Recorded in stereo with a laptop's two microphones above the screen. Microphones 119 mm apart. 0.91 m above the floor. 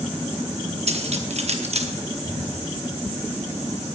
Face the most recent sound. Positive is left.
turn(degrees=-45)  # may be behind; listen again after turning